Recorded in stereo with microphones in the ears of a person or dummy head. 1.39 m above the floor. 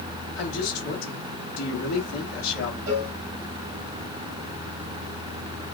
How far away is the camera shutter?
I don't hear a camera shutter.